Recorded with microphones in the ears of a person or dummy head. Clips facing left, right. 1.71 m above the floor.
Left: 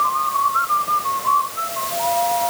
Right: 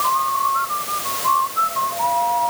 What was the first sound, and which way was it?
Only background noise.